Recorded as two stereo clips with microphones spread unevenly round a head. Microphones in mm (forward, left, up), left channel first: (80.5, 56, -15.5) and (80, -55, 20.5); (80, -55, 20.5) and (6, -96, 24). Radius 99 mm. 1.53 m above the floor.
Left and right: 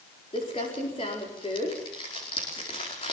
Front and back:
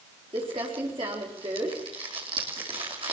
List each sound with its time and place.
0.3 s crumpling: 155° left, 4.5 m